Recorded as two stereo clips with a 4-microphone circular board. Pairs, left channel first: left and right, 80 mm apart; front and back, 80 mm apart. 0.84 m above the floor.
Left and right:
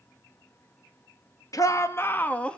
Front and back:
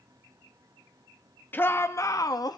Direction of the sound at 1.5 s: 60° left.